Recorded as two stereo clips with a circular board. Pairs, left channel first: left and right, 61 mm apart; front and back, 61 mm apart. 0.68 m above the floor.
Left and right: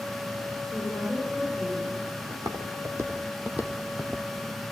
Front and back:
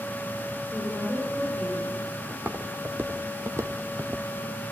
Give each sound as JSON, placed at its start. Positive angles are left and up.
{"t": 0.7, "sound": "a woman speaking", "azimuth_deg": -35, "distance_m": 9.5}
{"t": 2.3, "sound": "footsteps", "azimuth_deg": -110, "distance_m": 2.0}